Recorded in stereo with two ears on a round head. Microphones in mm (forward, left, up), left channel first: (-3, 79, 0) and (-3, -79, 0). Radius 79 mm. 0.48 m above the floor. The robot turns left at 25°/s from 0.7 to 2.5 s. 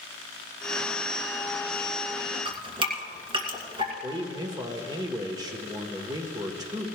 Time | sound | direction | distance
2.5 | dripping | 30° right (ahead or behind) | 2 m
4.0 | a man speaking | 20° right (ahead or behind) | 1.1 m